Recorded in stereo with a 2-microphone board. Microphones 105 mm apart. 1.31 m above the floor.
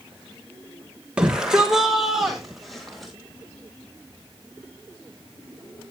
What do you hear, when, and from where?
1.2 s a shout: 10° right (ahead or behind), 1.0 m; by 3.1 s 5° left (ahead or behind), 2 m